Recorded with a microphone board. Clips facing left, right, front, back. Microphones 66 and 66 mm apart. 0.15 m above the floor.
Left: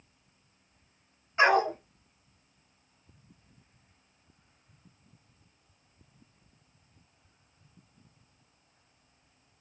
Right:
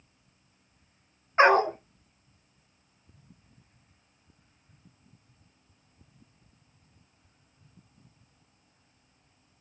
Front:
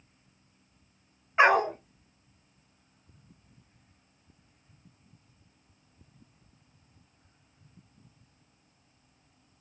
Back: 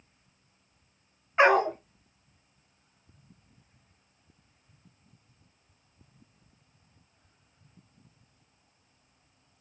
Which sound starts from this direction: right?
A dog barking, at 1.4 s.